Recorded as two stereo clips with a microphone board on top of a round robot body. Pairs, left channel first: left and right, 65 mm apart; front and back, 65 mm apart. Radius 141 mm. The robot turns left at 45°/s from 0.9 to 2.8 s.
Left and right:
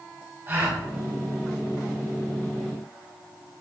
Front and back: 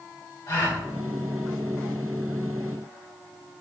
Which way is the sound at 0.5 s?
35° right.